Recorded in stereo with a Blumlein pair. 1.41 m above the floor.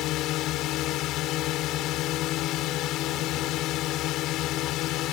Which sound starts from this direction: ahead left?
A drone, at 0.0 s.